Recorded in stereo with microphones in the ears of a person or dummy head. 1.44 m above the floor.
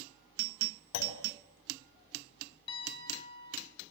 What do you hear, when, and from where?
0.9 s a clunk: 70° left (ahead or behind), 2.5 m
2.7 s a piano: 30° left (ahead or behind), 5.5 m